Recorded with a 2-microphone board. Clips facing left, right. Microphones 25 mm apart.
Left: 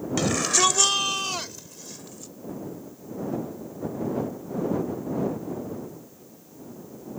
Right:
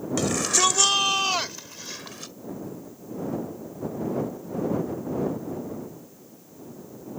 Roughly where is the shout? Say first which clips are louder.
Left 1 dB; centre.